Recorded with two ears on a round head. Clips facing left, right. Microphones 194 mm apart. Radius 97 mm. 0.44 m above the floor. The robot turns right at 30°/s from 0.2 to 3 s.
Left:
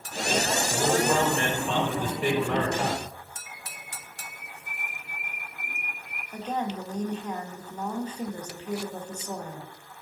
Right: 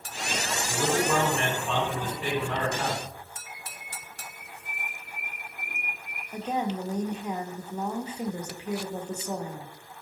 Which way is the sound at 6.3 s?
10° right (ahead or behind).